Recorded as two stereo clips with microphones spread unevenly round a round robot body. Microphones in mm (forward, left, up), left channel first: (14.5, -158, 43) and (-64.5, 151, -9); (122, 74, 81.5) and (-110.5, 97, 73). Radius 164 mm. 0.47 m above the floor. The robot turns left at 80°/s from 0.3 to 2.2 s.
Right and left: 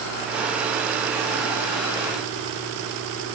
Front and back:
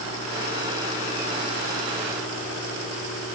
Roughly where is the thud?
No thud in this recording.